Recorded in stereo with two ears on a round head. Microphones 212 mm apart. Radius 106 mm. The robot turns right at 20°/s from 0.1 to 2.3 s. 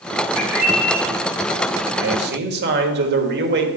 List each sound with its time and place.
0.3 s a bird: 5° right (ahead or behind), 4 m; by 1.0 s 15° right (ahead or behind), 4 m
2.0 s a man speaking: 50° right (ahead or behind), 1.6 m; by 3.7 s 45° right (ahead or behind), 1.6 m